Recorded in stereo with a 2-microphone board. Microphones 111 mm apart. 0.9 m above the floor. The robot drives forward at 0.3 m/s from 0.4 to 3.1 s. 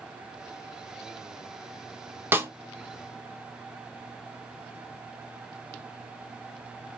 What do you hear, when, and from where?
2.3 s a snare drum: 15° right (ahead or behind), 0.6 m; by 2.5 s 20° right (ahead or behind), 0.6 m